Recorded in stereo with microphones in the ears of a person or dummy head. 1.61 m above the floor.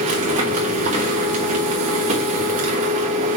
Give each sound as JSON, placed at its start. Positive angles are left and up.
{"t": 0.0, "sound": "a machine running", "side_deg": -40, "distance_m": 1.2}